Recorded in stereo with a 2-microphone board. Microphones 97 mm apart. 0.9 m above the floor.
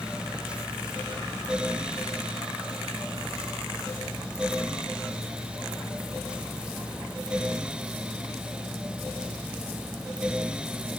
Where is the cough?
I don't hear a cough.